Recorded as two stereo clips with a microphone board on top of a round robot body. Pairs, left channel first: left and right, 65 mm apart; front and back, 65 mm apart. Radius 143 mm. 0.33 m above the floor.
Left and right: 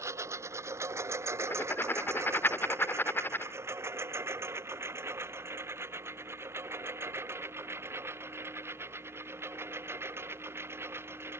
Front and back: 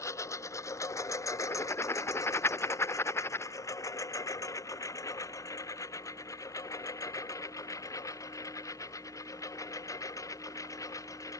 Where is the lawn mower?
45° right; by 11.4 s 35° right.